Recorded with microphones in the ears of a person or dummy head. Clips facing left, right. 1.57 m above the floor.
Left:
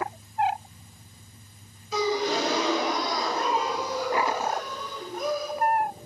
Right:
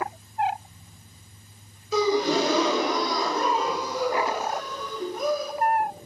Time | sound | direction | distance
1.9 | a gasp | 85° right | 3.5 m